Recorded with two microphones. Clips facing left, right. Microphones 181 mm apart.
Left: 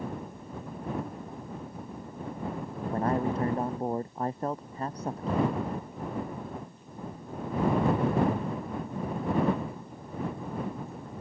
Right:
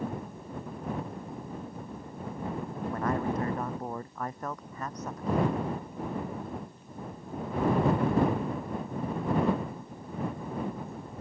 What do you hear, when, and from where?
2.9 s a man speaking: 30° left (ahead or behind)